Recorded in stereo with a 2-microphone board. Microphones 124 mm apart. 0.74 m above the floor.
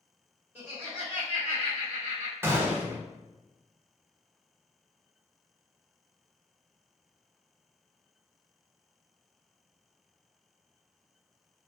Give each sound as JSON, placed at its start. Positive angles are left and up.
{"t": 0.6, "sound": "laughter", "side_deg": -15, "distance_m": 1.0}
{"t": 2.4, "sound": "a gunshot", "side_deg": -20, "distance_m": 0.5}